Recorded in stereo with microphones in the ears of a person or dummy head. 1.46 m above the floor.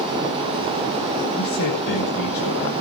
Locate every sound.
1.3 s a man speaking: 60° left (ahead or behind), 6.5 m